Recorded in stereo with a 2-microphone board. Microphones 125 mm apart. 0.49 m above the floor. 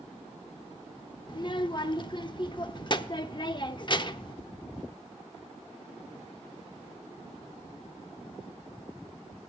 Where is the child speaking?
40° left (ahead or behind), 0.6 m.